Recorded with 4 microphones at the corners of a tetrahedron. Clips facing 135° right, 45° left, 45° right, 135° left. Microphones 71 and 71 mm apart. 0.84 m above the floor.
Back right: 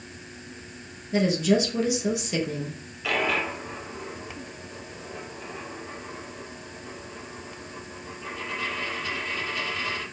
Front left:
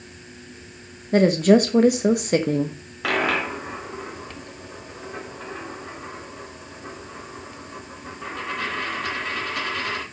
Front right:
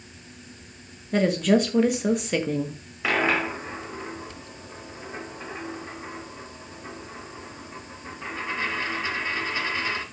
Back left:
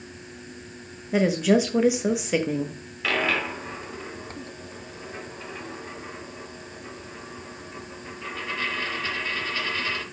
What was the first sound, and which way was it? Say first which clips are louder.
A woman speaking: front left 7 dB, even; 55° left.